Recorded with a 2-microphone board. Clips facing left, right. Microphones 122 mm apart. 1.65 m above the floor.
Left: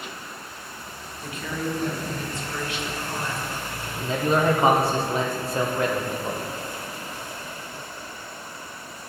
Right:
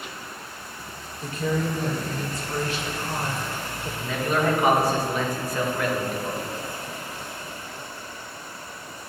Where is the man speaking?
30° left (ahead or behind), 0.8 m.